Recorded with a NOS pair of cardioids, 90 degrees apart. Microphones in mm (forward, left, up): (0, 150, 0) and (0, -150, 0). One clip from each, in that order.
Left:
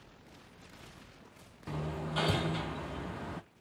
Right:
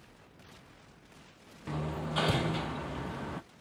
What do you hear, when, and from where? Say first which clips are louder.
1.7 s hammering: right 2 dB; 15° right, 0.5 m